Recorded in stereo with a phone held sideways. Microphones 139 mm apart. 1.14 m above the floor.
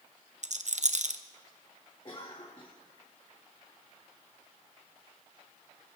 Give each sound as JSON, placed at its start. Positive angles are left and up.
{"t": 0.4, "sound": "a rattle", "side_deg": -60, "distance_m": 0.7}
{"t": 2.0, "sound": "a cough", "side_deg": 35, "distance_m": 2.0}